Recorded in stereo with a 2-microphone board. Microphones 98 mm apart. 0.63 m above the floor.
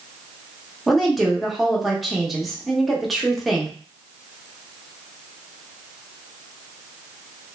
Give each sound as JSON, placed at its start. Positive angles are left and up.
{"t": 0.9, "sound": "a woman speaking", "side_deg": 0, "distance_m": 0.7}